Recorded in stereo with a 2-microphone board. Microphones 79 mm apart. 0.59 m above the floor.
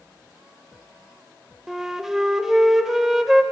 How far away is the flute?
About 0.5 m.